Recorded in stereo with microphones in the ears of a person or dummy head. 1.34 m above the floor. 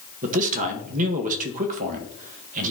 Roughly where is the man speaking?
Right.